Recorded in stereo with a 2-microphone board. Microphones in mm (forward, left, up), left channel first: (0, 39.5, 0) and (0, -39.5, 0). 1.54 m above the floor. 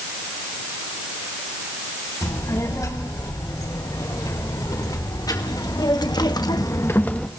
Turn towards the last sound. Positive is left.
turn(degrees=10)  # may be behind; listen again after turning